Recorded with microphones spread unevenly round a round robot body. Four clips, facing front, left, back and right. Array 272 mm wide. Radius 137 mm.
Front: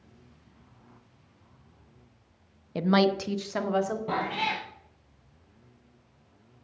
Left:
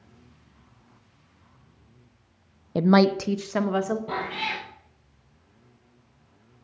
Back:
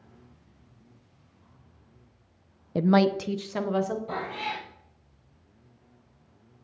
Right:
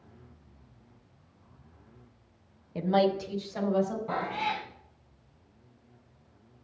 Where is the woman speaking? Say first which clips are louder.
Left 6 dB, back 2 dB; 115° left, 0.6 m; by 4.0 s 90° left, 2 m.